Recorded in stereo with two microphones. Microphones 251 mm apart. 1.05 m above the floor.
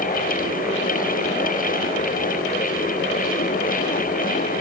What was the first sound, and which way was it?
Only background noise.